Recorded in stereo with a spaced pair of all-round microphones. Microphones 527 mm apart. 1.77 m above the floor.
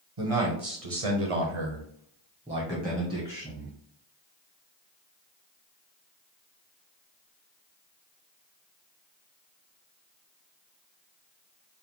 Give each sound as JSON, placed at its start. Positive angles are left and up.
{"t": 0.2, "sound": "a man speaking", "side_deg": -70, "distance_m": 1.7}